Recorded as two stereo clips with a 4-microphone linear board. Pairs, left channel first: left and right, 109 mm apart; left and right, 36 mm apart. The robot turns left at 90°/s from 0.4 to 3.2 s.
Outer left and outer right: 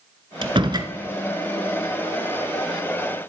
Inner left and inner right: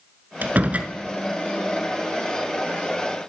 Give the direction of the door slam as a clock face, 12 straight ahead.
3 o'clock.